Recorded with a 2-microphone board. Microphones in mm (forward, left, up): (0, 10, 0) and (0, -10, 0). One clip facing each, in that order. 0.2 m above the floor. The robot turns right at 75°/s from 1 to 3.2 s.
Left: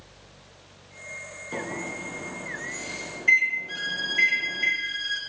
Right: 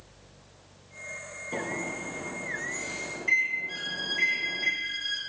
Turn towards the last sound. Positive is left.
turn(degrees=20)  # may be behind; listen again after turning